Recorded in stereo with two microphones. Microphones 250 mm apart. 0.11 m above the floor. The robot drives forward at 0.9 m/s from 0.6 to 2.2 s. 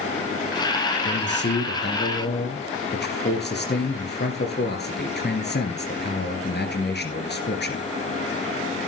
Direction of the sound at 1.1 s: 45° left (ahead or behind).